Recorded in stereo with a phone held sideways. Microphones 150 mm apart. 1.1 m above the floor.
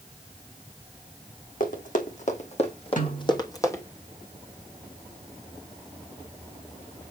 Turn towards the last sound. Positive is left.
turn(degrees=65)  # may be behind; listen again after turning